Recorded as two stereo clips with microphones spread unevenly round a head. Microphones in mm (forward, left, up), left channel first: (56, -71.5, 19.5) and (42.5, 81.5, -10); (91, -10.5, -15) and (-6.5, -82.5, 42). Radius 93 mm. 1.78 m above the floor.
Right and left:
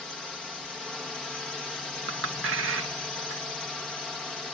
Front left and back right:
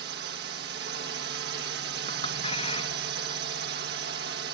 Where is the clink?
110° left.